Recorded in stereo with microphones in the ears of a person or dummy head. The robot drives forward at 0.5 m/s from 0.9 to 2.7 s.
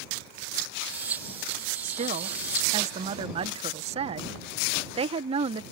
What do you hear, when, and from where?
1.8 s a woman speaking: 50° right (ahead or behind); by 5.6 s 35° right (ahead or behind)